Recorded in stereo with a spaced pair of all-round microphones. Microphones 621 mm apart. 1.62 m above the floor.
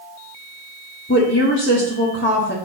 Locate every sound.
1.1 s a woman speaking: 20° left (ahead or behind), 1.0 m